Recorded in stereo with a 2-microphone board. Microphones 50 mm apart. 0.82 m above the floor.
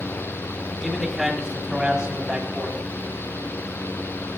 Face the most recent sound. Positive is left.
turn(degrees=-25)  # may be behind; listen again after turning